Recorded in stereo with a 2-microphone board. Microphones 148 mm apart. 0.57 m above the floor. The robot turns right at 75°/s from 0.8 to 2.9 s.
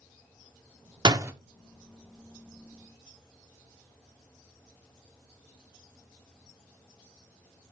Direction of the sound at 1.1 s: 30° right (ahead or behind).